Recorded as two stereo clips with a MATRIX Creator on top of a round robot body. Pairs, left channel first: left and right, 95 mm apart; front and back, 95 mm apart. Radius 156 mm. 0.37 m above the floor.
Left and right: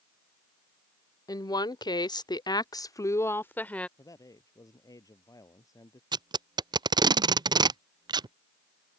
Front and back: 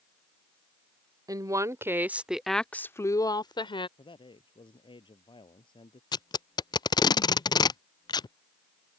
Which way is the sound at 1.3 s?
135° left.